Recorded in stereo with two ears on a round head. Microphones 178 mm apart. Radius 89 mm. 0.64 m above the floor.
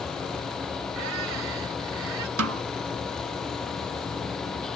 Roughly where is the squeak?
Right.